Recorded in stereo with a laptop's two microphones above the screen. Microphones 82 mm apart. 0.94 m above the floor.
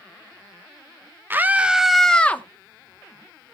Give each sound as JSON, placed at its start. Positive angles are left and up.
{"t": 1.3, "sound": "a scream", "side_deg": -25, "distance_m": 0.9}